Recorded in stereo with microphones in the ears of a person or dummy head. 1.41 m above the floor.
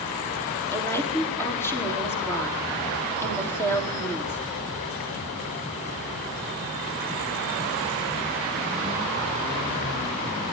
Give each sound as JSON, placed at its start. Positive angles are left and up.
{"t": 0.7, "sound": "a woman speaking", "side_deg": 15, "distance_m": 4.0}